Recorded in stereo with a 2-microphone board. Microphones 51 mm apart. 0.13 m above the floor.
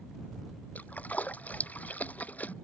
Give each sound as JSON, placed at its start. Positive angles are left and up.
{"t": 0.8, "sound": "a splash", "side_deg": 30}